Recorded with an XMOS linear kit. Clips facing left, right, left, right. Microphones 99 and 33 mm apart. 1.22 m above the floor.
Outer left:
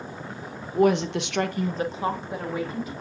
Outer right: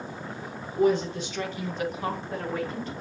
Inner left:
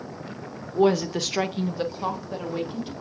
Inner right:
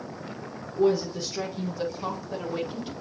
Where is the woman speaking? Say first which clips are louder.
Outer left 3 dB, inner left 3 dB; 65° left (ahead or behind), 0.8 m; by 2.9 s 5° left (ahead or behind), 1.6 m.